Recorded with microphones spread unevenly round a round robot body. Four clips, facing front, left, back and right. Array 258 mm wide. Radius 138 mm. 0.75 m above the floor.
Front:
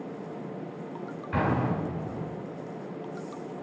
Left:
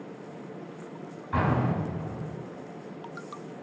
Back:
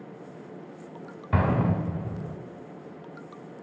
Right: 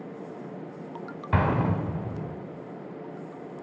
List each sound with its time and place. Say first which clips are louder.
1.3 s an explosion: right 1 dB, back 2 dB; 140° right, 2 m